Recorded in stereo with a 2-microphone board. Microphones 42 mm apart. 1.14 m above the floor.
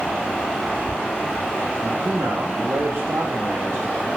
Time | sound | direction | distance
1.8 | a man speaking | 75° right (ahead or behind) | 0.8 m